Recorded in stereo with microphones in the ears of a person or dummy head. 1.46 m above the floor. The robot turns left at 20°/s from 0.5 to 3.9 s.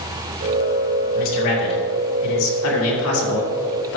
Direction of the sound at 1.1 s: 135° left.